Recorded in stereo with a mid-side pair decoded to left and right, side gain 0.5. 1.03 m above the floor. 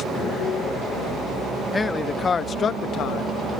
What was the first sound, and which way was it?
A man speaking, 25° left.